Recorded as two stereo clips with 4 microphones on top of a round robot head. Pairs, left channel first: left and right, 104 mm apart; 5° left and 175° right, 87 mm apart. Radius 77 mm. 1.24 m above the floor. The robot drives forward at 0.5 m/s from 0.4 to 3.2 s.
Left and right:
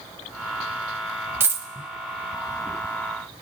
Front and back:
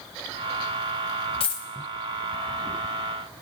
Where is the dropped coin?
25° right, 0.8 m; by 1.7 s 35° right, 0.7 m.